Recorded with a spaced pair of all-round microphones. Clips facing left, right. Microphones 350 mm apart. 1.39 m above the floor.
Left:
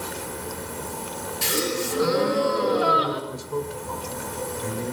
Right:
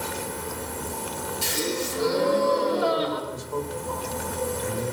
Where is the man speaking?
40° left (ahead or behind), 5 m.